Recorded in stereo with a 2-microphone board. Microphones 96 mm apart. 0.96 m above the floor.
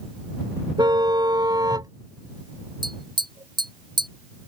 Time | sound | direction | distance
0.8 | a car horn | 50° right (ahead or behind) | ?
2.8 | tapping | 50° right (ahead or behind) | ?